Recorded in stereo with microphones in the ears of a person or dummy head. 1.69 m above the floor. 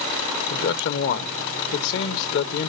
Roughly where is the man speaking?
Left.